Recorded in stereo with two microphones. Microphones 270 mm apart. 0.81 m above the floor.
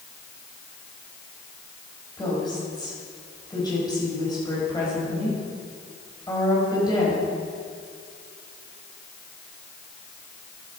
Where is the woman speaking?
15° left (ahead or behind), 4 m.